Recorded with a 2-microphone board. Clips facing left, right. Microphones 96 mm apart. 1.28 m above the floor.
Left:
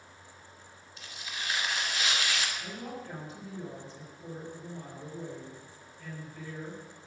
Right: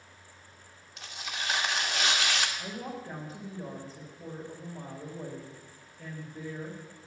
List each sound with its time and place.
1.0 s tearing paper: 75° right (ahead or behind), 2 m
2.6 s a woman speaking: 40° right (ahead or behind), 4.5 m